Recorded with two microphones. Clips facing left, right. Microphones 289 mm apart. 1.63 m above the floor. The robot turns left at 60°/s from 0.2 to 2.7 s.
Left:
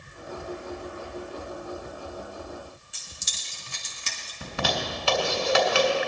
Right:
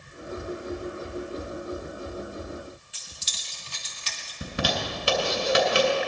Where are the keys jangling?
55° left (ahead or behind), 1.9 m.